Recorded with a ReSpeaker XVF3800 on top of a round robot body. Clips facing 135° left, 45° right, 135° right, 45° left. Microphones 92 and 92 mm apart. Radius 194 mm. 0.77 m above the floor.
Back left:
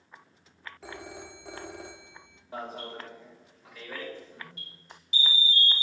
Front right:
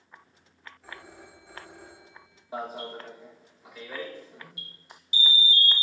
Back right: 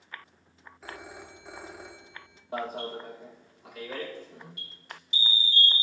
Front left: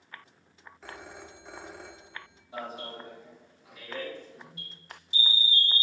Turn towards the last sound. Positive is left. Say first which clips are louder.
# front right 3 dB, back right 5 dB
turn(degrees=-125)